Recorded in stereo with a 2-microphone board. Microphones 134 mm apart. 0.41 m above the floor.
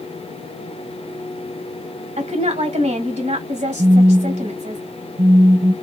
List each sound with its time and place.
2.2 s a woman speaking: 65° right (ahead or behind), 1.9 m
3.8 s a phone buzzing: 60° right (ahead or behind), 0.7 m